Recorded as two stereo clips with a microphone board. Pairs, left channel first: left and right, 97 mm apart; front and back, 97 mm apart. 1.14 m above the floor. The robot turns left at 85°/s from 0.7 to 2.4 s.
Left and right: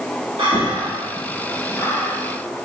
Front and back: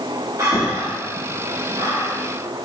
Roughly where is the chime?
I don't hear a chime.